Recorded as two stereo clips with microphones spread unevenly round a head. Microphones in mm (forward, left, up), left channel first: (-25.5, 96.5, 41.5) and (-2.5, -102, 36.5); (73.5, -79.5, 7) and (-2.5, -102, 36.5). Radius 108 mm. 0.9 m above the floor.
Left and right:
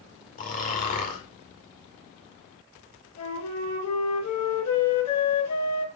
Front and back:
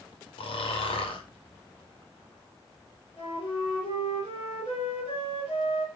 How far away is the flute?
About 4 m.